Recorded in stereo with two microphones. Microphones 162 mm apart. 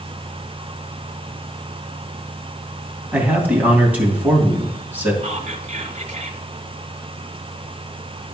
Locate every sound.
3.1 s a man speaking: 10° right (ahead or behind), 2.5 m
5.2 s whispering: 45° right (ahead or behind), 1.2 m